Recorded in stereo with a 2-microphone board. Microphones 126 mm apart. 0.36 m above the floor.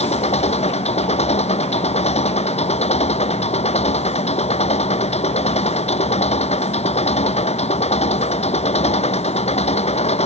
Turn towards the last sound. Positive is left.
turn(degrees=60)  # may be behind; listen again after turning